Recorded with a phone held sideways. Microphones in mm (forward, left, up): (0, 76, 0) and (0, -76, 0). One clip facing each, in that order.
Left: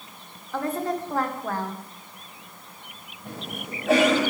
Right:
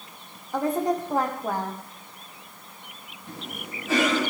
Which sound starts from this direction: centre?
A woman speaking, at 0.5 s.